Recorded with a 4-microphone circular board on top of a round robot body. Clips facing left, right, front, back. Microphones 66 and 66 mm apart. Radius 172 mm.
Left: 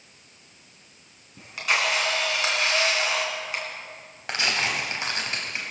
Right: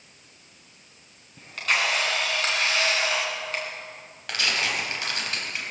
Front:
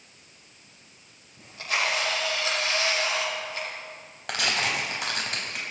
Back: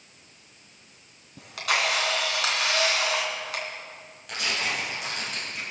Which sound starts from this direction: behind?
A camera shutter, at 1.4 s.